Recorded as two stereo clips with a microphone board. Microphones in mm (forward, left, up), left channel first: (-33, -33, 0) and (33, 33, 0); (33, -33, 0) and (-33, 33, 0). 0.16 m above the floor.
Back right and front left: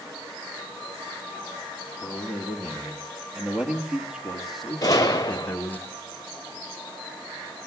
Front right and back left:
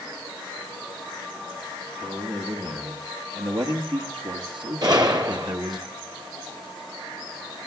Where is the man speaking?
115° left, 4.5 m; by 5.8 s 165° left, 1.6 m.